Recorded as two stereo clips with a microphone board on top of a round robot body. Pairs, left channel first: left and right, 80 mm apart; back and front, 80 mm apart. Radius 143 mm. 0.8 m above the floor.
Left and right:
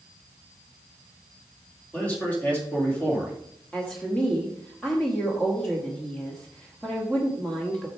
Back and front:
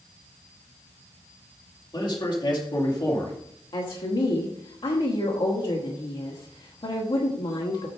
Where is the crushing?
No crushing in this recording.